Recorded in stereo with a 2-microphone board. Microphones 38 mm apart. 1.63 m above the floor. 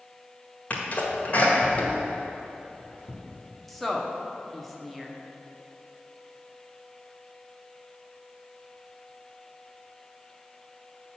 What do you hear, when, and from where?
0.7 s a sneeze: 40° left (ahead or behind), 1.7 m
3.7 s a woman speaking: centre (ahead or behind), 1.0 m